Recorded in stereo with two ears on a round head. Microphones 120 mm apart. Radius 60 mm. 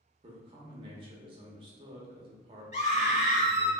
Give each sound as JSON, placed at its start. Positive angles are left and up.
{"t": 0.2, "sound": "a man speaking", "side_deg": -40, "distance_m": 0.7}
{"t": 2.7, "sound": "a scream", "side_deg": 50, "distance_m": 1.6}